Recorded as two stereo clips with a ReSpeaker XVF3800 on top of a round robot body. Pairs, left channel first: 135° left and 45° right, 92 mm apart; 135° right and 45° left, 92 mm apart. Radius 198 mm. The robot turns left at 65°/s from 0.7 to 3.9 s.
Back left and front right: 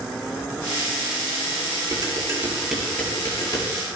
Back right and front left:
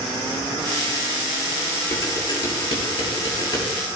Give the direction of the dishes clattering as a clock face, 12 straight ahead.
3 o'clock.